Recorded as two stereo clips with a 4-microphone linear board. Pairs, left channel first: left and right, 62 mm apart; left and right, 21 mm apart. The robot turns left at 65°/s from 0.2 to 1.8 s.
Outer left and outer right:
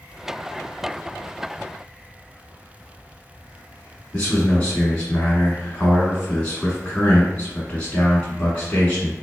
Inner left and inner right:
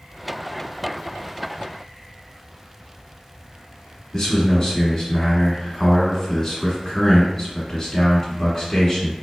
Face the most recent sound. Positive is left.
turn(degrees=20)  # may be behind; listen again after turning